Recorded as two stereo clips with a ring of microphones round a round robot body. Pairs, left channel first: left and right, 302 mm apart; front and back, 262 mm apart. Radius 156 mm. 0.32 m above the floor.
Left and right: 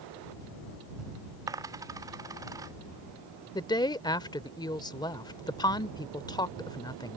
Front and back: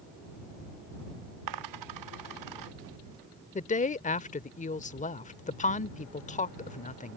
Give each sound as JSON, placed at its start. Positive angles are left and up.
{"t": 1.5, "sound": "a dropped coin", "azimuth_deg": -170}
{"t": 3.5, "sound": "a woman speaking", "azimuth_deg": 25}